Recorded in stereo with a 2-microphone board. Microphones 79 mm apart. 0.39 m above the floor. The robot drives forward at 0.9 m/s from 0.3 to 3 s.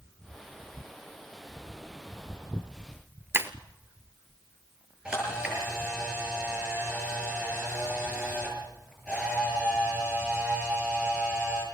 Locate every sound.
3.3 s breaking glass: 30° right (ahead or behind), 0.9 m
5.0 s a camera shutter: 10° right (ahead or behind), 8 m